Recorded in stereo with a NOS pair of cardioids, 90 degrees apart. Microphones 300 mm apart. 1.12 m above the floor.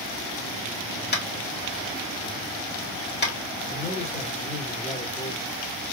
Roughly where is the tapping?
Ahead left.